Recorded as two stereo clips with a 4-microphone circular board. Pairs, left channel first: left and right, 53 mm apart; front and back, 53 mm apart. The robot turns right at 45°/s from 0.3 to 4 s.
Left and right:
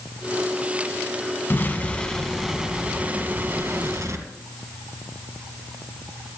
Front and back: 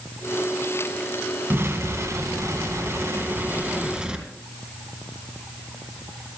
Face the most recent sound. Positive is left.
turn(degrees=-110)